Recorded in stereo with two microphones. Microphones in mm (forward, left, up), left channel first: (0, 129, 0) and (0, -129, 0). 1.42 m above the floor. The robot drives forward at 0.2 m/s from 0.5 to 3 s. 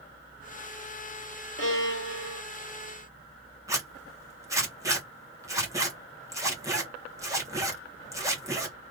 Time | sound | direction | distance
1.6 | a violin | 50° left (ahead or behind) | 1.2 m
3.7 | a zipper | 10° right (ahead or behind) | 1.7 m